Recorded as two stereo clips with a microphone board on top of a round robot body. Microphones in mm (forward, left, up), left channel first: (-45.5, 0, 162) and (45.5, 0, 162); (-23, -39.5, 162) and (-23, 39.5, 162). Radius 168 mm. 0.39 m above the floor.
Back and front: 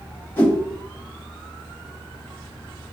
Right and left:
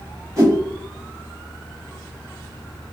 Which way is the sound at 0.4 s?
120° left.